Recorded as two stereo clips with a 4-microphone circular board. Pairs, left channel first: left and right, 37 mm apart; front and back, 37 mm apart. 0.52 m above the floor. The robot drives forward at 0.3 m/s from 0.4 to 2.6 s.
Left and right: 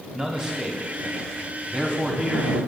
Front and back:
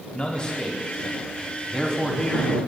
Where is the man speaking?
35° right, 1.4 m; by 2.6 s 110° right, 1.3 m.